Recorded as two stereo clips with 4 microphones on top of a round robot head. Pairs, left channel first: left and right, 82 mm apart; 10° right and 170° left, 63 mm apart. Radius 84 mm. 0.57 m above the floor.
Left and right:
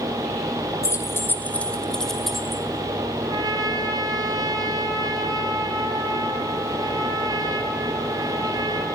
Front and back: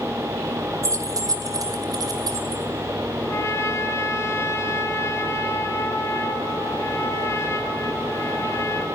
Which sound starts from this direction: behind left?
Keys jangling, at 0.8 s.